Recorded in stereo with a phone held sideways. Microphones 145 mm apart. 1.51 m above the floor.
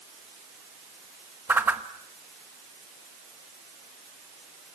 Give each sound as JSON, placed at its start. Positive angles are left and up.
{"t": 1.5, "sound": "a whoosh", "side_deg": -15, "distance_m": 1.2}